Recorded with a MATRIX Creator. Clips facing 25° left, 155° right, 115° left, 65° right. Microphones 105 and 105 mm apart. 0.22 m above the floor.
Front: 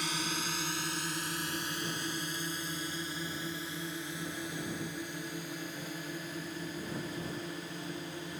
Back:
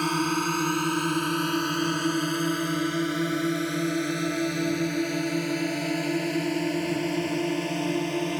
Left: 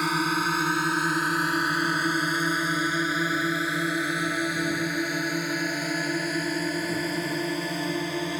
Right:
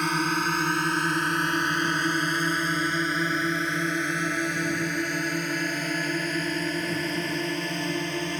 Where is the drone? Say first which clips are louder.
Back 12 dB, even; 165° right.